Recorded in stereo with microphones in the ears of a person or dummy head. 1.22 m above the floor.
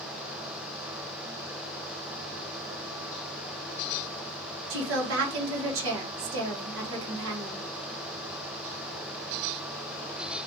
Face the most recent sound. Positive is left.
turn(degrees=-70)  # may be behind; listen again after turning